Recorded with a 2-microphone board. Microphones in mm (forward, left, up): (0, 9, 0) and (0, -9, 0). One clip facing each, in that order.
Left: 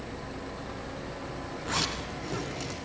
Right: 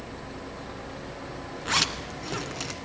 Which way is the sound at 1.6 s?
40° right (ahead or behind).